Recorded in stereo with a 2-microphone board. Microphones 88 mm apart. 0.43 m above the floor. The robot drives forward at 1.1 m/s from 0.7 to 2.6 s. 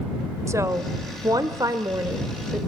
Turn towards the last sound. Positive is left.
turn(degrees=-30)  # may be behind; listen again after turning